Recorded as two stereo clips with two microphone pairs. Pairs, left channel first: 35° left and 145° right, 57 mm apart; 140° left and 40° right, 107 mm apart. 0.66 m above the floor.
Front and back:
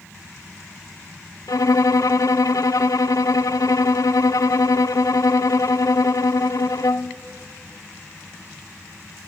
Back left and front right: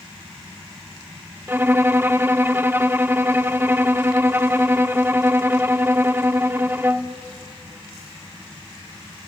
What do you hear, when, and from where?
1.5 s a violin: 30° left, 0.6 m